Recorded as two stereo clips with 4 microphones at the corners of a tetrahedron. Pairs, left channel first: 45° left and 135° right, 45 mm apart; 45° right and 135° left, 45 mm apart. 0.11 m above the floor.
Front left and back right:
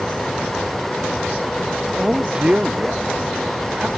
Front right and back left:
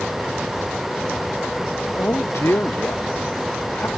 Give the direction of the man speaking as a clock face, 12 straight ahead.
2 o'clock.